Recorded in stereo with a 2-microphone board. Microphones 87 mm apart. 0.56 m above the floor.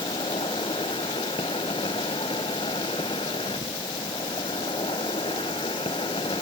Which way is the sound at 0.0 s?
85° left.